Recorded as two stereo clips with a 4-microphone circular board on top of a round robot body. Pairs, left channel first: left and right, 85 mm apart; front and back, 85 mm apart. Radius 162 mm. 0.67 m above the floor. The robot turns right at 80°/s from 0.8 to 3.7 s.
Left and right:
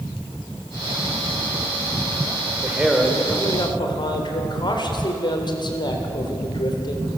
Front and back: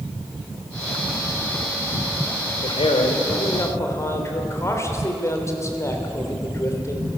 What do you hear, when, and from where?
2.6 s a man speaking: 30° right, 3 m; by 7.1 s 60° left, 3 m